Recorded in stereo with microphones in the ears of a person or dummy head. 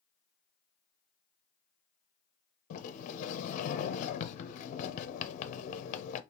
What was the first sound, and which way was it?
A sliding door, 45° left (ahead or behind).